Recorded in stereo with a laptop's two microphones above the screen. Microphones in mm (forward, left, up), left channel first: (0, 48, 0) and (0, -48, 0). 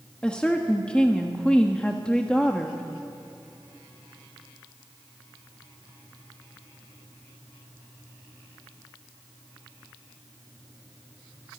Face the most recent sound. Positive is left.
turn(degrees=10)  # may be behind; listen again after turning